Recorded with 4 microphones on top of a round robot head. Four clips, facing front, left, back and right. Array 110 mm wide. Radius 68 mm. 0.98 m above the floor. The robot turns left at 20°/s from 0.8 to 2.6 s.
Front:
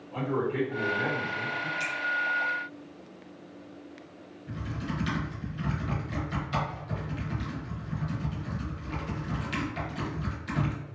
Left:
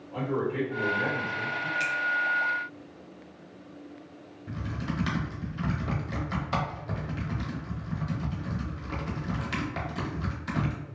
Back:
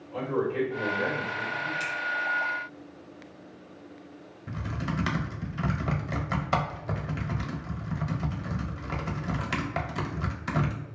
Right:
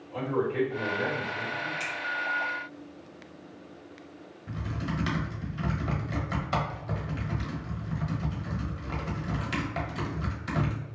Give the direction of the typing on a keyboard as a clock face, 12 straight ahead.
6 o'clock.